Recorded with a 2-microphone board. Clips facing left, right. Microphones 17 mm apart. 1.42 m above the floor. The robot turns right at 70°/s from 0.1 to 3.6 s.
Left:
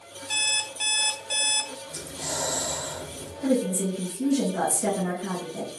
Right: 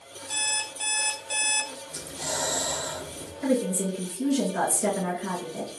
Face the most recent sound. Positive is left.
turn(degrees=-75)  # may be behind; listen again after turning